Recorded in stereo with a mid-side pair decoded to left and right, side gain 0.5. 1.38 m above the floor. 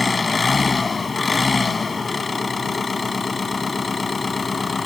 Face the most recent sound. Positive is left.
turn(degrees=25)